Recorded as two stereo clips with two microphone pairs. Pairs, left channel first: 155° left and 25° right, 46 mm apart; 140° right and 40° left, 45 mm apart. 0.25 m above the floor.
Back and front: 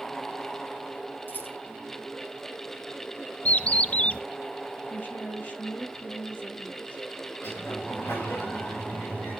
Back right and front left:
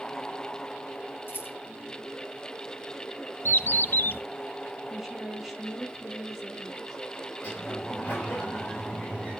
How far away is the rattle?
About 3.5 m.